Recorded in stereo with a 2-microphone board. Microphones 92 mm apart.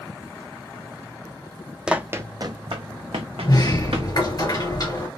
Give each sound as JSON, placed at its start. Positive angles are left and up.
{"t": 1.9, "sound": "running footsteps", "side_deg": -10, "distance_m": 0.6}
{"t": 3.4, "sound": "a sliding door", "side_deg": 50, "distance_m": 2.5}